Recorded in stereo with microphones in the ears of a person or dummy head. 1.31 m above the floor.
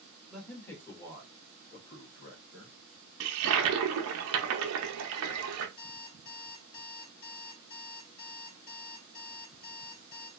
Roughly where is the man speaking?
Centre.